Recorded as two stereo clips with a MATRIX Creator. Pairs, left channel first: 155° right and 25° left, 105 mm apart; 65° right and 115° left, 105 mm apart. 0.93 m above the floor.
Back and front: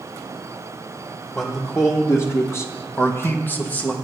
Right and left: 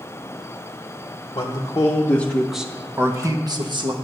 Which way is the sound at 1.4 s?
95° right.